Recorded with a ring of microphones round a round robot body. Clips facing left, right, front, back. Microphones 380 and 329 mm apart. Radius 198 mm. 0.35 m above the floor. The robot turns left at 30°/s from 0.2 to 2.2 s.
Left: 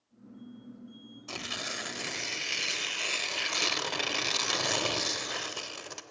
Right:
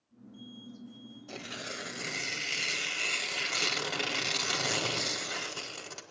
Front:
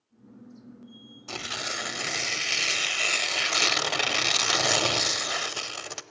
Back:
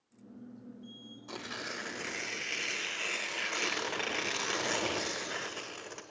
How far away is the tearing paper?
About 0.6 m.